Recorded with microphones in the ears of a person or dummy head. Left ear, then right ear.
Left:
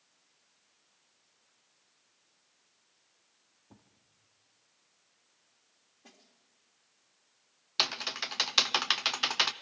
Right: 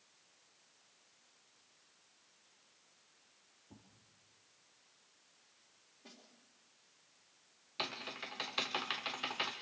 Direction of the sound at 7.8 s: 65° left (ahead or behind).